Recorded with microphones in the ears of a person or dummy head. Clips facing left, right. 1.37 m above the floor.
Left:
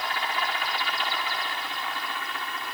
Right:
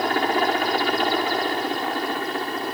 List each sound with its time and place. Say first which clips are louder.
0.0 s a helicopter: right 10 dB; 45° right (ahead or behind); by 2.8 s 40° right (ahead or behind)